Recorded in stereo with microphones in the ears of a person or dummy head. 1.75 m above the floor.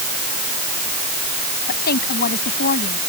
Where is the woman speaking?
55° left (ahead or behind).